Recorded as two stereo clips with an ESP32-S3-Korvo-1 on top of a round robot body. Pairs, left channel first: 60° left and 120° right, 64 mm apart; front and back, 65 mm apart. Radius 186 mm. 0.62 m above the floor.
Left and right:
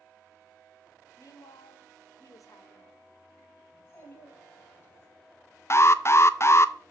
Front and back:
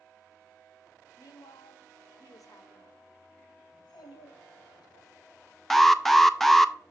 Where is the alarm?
85° left, 0.7 m.